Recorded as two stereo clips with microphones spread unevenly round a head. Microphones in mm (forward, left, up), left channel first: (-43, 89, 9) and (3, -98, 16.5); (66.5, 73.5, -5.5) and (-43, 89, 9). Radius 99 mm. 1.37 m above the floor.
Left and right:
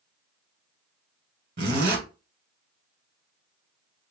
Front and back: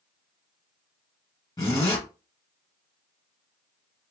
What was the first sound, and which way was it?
A zipper, 60° right.